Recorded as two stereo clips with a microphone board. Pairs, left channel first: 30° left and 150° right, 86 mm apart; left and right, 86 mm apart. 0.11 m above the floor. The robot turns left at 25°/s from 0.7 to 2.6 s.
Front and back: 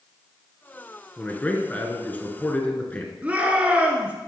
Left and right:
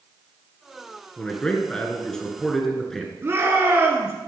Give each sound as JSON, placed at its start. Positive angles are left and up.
{"t": 1.2, "sound": "a man speaking", "azimuth_deg": 50, "distance_m": 1.6}
{"t": 3.2, "sound": "a shout", "azimuth_deg": -95, "distance_m": 1.6}